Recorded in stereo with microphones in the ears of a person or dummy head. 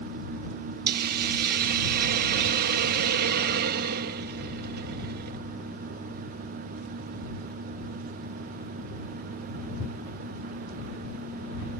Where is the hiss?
50° right (ahead or behind).